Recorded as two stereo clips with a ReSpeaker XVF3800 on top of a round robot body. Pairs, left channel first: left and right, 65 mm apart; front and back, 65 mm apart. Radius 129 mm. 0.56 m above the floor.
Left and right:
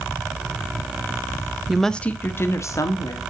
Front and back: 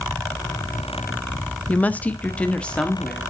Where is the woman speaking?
15° right, 1.0 m; by 3.2 s 75° left, 1.9 m.